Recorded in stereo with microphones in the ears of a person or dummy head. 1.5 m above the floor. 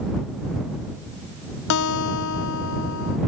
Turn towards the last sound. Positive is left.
turn(degrees=70)  # may be behind; listen again after turning